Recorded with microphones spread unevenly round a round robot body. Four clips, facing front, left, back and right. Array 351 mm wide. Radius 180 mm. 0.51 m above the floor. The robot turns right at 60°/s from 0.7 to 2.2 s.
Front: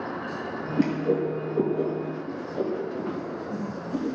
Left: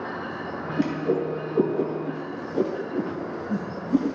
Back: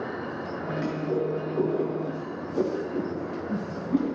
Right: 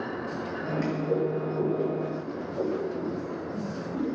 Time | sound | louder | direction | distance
0.8 | a whoosh | left 3 dB, front 5 dB | 30° left | 5 m